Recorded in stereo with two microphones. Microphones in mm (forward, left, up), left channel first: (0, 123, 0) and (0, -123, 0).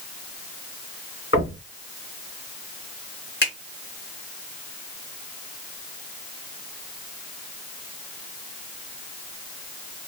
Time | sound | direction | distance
1.3 | knocking | 50° left (ahead or behind) | 3 m
3.4 | a finger snap | 45° left (ahead or behind) | 3.5 m